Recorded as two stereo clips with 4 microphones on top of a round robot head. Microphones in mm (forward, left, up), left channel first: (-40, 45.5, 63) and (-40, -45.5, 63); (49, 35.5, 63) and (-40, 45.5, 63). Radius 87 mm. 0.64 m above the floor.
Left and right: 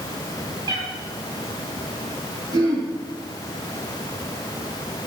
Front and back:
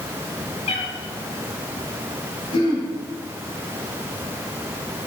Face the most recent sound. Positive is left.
turn(degrees=-40)